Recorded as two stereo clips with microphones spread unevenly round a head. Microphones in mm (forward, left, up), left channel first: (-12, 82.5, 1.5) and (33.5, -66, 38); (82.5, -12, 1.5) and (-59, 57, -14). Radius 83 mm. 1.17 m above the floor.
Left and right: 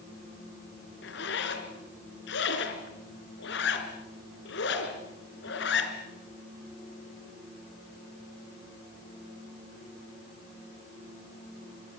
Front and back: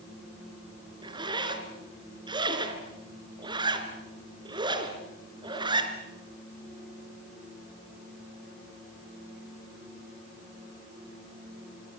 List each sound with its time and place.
1.0 s a zipper: 90° left, 2.5 m